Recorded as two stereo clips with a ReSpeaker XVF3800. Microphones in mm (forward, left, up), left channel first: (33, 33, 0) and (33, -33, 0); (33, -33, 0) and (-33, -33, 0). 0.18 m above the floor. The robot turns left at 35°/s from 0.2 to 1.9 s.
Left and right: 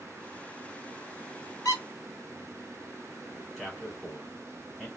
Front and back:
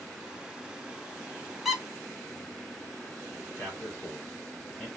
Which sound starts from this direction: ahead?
A man speaking, at 3.6 s.